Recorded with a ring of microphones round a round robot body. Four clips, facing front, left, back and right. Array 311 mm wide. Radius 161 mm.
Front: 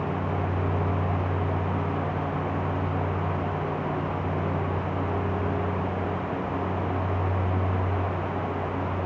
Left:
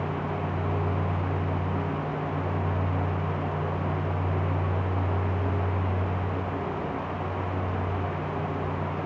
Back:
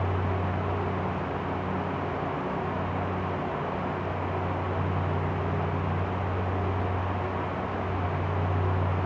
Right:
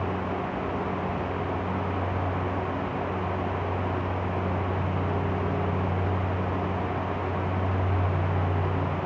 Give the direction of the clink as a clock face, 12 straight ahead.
I don't hear a clink.